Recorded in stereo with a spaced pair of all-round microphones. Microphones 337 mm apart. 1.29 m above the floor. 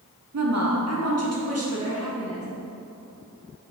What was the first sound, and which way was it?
A woman speaking, 50° right (ahead or behind).